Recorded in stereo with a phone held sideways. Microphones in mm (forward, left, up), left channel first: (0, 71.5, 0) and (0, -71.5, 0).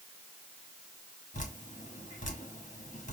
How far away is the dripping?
About 1.5 m.